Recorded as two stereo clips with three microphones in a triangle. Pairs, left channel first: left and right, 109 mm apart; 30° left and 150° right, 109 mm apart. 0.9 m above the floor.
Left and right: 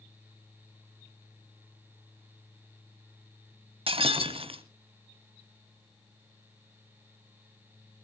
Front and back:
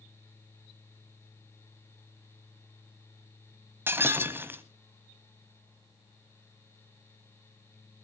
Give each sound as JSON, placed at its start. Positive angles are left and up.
{"t": 3.9, "sound": "breaking glass", "azimuth_deg": -85, "distance_m": 1.2}